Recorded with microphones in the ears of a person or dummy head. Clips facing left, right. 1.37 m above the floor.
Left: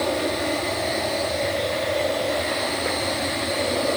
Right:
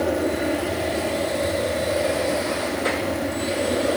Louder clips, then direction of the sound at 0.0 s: Right 2 dB; 10° right (ahead or behind).